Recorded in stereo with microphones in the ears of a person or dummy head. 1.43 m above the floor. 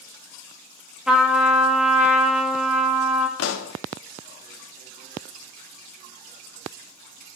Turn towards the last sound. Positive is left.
turn(degrees=75)  # may be behind; listen again after turning